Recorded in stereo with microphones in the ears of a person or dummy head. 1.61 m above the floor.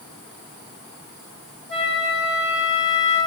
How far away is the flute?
About 1.1 m.